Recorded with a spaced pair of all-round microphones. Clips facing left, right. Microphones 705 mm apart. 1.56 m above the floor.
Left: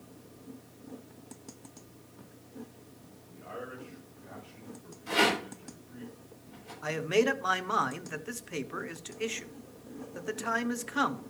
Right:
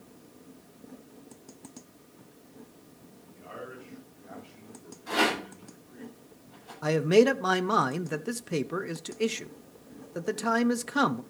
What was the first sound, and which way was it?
A man speaking, 45° left (ahead or behind).